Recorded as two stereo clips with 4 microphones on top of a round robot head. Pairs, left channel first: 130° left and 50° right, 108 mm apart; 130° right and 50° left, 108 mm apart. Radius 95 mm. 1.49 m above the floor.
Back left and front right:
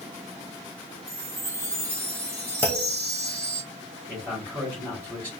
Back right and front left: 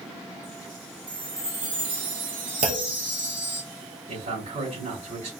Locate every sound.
1.1 s a chime: 15° left, 1.5 m
2.6 s a clunk: 60° left, 0.5 m
4.1 s a man speaking: 50° left, 2.5 m